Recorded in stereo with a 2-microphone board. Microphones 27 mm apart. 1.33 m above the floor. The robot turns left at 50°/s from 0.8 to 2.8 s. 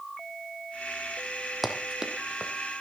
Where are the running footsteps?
5° right (ahead or behind), 2.5 m; by 2.5 s 40° right (ahead or behind), 2.5 m.